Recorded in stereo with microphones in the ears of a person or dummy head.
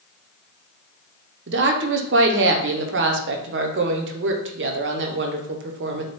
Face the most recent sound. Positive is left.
turn(degrees=-60)  # may be behind; listen again after turning